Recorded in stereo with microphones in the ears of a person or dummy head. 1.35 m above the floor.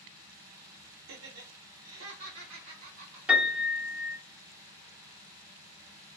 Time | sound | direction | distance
1.1 | laughter | 70° right (ahead or behind) | 0.7 m
3.3 | a piano | 5° right (ahead or behind) | 0.9 m